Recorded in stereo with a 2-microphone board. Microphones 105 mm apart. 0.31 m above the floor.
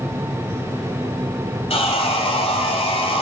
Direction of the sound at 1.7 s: 60° left (ahead or behind).